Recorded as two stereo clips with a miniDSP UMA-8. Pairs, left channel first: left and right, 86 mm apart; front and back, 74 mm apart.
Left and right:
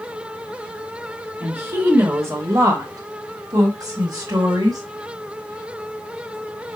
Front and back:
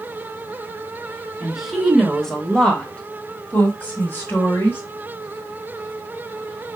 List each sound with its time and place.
1.4 s a woman speaking: 120° right, 1.3 m; by 4.8 s 55° right, 2.5 m